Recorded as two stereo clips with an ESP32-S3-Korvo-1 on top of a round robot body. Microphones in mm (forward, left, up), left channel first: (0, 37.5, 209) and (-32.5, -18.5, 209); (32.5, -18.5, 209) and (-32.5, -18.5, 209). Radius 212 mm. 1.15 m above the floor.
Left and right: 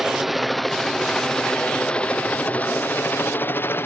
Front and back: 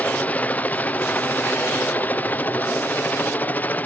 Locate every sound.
0.0 s a helicopter: 40° right; by 3.9 s 45° left